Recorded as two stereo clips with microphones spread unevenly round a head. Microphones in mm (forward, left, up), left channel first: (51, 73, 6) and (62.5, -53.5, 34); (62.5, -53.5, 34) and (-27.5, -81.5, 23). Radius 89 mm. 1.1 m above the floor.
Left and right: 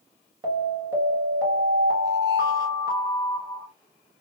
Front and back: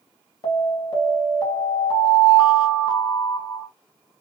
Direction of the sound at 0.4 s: 20° right.